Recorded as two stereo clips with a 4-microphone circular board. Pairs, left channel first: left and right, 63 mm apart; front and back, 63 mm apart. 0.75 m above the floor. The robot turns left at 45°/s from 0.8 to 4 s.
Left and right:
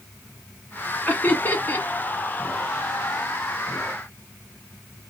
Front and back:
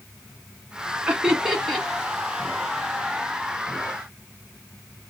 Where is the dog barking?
I don't hear a dog barking.